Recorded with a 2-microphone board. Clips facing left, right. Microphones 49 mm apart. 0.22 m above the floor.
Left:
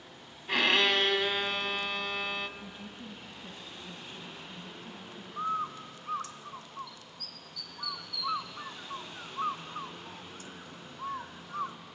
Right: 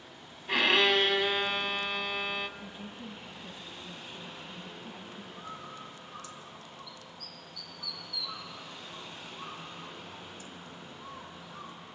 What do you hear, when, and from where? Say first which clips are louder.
0.5 s a violin: right 1 dB; centre (ahead or behind), 0.6 m
2.6 s a woman speaking: right 1 dB; 5° right (ahead or behind), 1.3 m
5.4 s a bird: left 14 dB; 65° left (ahead or behind), 0.7 m